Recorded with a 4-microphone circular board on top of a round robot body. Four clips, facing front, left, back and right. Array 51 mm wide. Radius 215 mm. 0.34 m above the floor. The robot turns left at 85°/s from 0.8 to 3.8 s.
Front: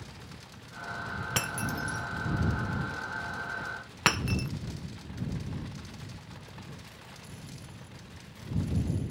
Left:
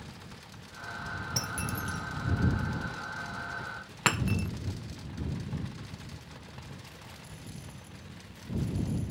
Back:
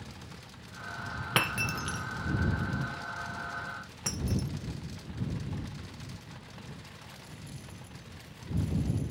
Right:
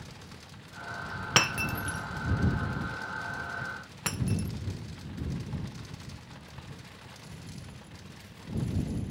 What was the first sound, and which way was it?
Breaking glass, 115° right.